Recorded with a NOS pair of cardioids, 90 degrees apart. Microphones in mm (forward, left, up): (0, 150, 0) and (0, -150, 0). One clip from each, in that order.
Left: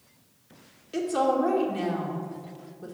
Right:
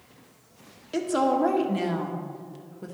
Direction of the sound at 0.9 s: 25° right.